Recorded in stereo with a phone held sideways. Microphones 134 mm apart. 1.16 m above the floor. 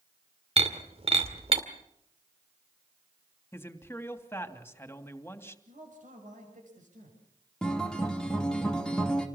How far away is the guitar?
About 2.5 m.